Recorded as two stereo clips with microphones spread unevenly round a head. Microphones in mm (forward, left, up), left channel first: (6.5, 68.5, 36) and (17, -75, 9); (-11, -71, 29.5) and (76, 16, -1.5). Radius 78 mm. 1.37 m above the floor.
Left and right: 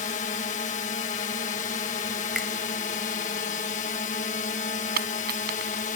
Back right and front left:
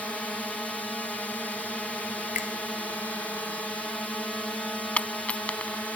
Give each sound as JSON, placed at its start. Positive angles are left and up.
{"t": 0.0, "sound": "a drone", "azimuth_deg": 140}
{"t": 2.4, "sound": "a finger snap", "azimuth_deg": 180}
{"t": 5.0, "sound": "a dropped coin", "azimuth_deg": -60}